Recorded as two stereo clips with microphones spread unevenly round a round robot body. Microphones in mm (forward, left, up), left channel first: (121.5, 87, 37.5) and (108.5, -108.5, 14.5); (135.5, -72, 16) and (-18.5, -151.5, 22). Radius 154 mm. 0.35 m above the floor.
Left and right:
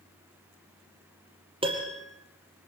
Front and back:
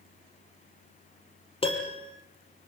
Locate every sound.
1.6 s a piano: 30° right, 5 m